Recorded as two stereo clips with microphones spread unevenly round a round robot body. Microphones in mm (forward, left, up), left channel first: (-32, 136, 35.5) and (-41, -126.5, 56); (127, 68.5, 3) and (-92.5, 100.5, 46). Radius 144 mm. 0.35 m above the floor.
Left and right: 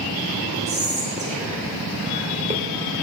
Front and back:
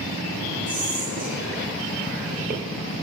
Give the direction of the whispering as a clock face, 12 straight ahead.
5 o'clock.